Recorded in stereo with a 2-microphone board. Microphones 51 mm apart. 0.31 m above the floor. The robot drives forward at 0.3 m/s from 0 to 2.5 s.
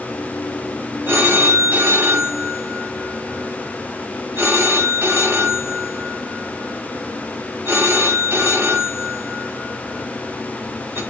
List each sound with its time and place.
1.1 s a phone ringing: 50° right (ahead or behind), 1.2 m